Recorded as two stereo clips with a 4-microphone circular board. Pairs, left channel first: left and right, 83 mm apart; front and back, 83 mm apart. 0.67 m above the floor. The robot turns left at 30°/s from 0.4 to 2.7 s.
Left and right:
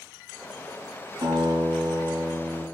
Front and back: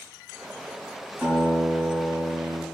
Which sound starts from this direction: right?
A guitar, at 1.2 s.